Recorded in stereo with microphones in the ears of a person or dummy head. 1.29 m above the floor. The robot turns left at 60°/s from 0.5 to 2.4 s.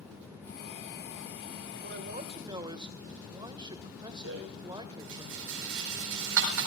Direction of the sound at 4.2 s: 70° right (ahead or behind).